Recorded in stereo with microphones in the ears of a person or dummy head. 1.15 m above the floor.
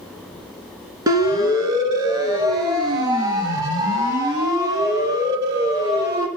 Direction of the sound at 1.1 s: 20° right (ahead or behind).